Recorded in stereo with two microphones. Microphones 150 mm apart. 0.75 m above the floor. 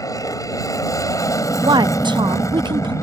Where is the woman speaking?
30° right (ahead or behind).